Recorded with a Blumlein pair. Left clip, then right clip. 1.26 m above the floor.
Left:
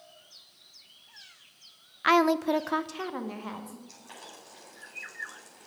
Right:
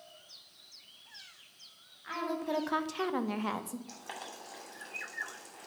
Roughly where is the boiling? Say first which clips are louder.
Right 3 dB; ahead right.